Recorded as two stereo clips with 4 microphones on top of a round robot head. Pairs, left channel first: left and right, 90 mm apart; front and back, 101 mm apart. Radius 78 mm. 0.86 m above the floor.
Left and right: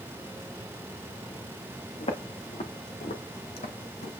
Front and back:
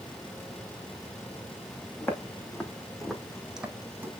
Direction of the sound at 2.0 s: 70° left.